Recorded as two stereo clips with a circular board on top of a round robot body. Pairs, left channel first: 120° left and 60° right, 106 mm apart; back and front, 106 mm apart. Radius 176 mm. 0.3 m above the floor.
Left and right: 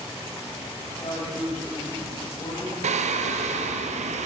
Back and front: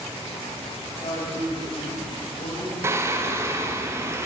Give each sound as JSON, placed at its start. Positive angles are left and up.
{"t": 0.8, "sound": "a woman speaking", "azimuth_deg": 145, "distance_m": 4.0}
{"t": 2.8, "sound": "singing", "azimuth_deg": -65, "distance_m": 0.5}